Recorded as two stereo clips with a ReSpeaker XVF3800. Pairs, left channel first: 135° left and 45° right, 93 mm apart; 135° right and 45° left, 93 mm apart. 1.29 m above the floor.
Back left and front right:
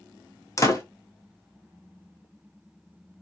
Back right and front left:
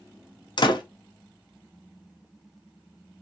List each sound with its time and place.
0.6 s a door slam: 170° right, 0.6 m